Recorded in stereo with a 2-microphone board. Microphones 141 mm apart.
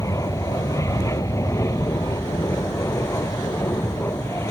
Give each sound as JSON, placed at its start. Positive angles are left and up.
{"t": 0.0, "sound": "an aircraft", "side_deg": 20}